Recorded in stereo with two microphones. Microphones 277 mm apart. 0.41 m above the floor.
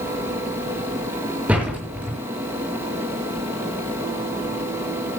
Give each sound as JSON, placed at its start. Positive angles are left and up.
{"t": 1.5, "sound": "a door slam", "side_deg": -5, "distance_m": 6.5}